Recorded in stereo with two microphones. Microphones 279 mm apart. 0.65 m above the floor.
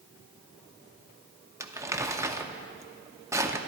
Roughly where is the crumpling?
Centre.